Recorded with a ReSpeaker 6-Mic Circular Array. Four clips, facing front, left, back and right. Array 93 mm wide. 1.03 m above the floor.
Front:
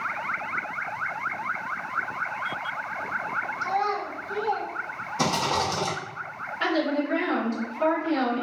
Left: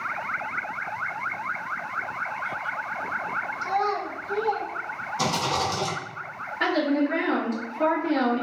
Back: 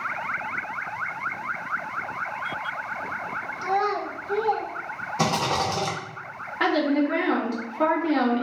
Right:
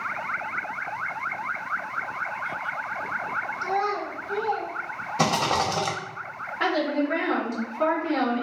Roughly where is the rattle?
Behind right.